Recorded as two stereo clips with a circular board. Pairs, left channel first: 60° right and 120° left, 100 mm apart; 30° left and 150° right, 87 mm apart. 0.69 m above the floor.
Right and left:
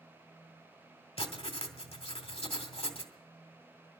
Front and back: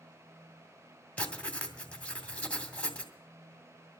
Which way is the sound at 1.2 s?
45° right.